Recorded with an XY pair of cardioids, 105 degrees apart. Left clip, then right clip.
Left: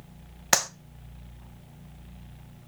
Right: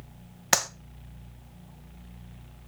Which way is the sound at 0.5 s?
Straight ahead.